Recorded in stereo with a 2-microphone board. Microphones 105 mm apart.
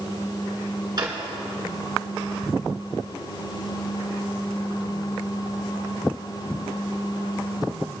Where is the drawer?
40° right (ahead or behind), 2.5 m.